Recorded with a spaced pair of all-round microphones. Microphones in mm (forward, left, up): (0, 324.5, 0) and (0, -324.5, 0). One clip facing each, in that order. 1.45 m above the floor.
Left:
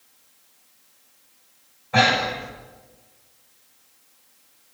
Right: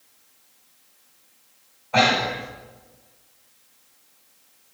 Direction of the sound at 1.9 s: 45° left (ahead or behind).